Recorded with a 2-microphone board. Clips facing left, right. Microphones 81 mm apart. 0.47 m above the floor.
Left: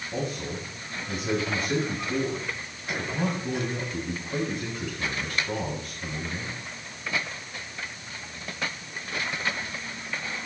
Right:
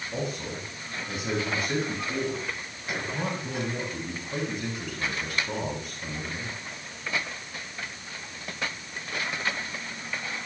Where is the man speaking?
5° right (ahead or behind), 9 m.